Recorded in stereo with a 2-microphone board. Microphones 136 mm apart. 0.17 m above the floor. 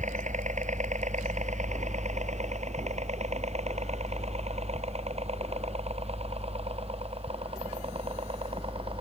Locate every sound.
0.0 s a helicopter: 60° right (ahead or behind); by 9.0 s 40° right (ahead or behind)